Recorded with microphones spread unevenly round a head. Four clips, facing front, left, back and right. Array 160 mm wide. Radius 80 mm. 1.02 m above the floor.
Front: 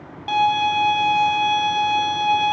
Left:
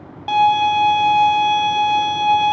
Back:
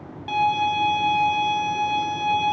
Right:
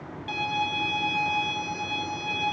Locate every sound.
0.3 s a violin: 70° left, 2 m